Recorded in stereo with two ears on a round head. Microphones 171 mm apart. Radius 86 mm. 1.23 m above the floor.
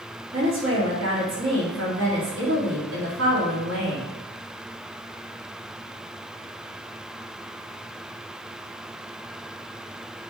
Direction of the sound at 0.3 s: 75° right (ahead or behind).